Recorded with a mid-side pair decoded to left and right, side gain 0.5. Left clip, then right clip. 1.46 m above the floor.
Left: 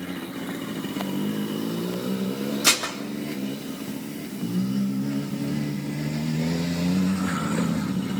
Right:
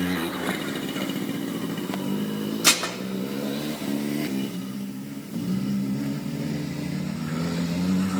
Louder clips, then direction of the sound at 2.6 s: Right 1 dB; 10° right.